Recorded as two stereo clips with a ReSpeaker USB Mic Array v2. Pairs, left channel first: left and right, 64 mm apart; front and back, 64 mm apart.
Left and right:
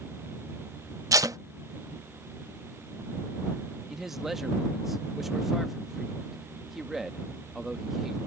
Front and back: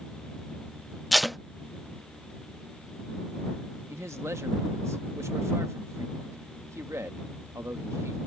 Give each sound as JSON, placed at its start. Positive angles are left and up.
{"t": 1.1, "sound": "tape being pulled", "azimuth_deg": -90}
{"t": 3.9, "sound": "a man speaking", "azimuth_deg": -175}